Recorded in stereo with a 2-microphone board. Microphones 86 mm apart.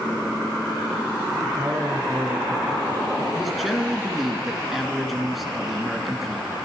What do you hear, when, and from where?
1.4 s a man speaking: 35° right (ahead or behind), 1.7 m; by 3.2 s 10° right (ahead or behind), 2.0 m
3.3 s a man speaking: centre (ahead or behind), 1.6 m